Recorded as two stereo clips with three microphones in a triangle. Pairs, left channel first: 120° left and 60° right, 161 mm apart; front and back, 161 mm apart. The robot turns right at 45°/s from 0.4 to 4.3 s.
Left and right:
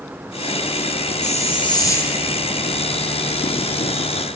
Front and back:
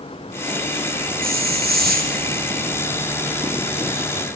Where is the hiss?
160° left, 3.5 m; by 2.2 s 155° right, 3.5 m.